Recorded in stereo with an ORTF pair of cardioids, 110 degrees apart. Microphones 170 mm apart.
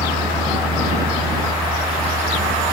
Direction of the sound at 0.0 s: 25° right.